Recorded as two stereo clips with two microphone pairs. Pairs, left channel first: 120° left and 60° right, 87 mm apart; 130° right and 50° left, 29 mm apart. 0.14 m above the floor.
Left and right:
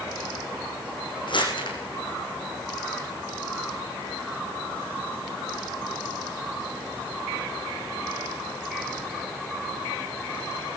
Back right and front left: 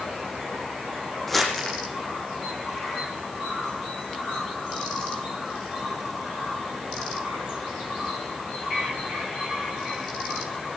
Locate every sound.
1.3 s crumpling: 145° left, 6 m